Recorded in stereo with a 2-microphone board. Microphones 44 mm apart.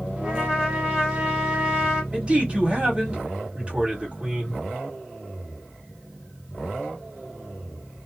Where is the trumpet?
20° right (ahead or behind), 1.9 m.